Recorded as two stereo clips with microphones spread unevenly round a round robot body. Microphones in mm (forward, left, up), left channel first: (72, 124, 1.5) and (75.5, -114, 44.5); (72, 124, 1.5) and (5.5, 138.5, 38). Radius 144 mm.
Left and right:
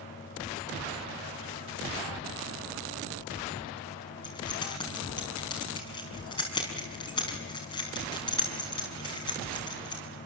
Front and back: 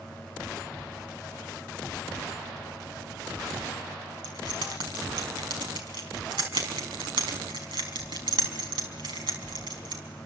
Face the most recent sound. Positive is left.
turn(degrees=165)